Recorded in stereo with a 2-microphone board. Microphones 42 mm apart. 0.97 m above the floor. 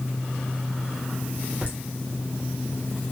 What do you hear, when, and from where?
1.6 s laughter: 30° right (ahead or behind), 1.1 m